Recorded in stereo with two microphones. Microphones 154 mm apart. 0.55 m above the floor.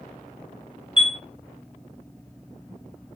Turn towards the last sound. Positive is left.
turn(degrees=35)  # may be behind; listen again after turning